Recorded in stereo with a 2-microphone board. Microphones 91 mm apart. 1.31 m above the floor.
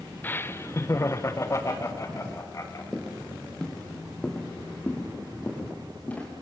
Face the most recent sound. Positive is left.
turn(degrees=15)  # may be behind; listen again after turning